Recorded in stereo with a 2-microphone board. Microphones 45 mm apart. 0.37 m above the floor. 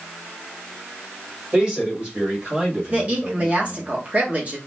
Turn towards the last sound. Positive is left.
turn(degrees=-30)  # may be behind; listen again after turning